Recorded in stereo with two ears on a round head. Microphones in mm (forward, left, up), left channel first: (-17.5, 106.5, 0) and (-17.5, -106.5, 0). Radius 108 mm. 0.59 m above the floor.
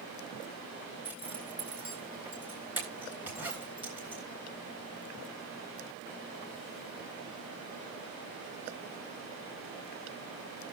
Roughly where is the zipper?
Centre.